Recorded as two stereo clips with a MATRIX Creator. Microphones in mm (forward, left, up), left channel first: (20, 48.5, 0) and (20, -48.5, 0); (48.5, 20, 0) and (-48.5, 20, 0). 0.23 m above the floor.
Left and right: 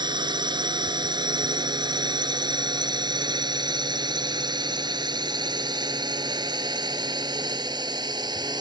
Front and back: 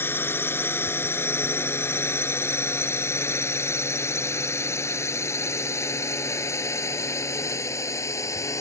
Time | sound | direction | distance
0.0 | a drone | 65° right | ?